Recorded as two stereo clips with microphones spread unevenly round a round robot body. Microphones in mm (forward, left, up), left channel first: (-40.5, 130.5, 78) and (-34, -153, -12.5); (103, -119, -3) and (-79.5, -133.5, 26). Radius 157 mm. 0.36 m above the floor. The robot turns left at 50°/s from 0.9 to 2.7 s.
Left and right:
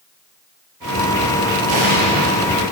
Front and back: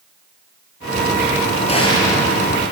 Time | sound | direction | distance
1.7 | an explosion | 50° right | 7.5 m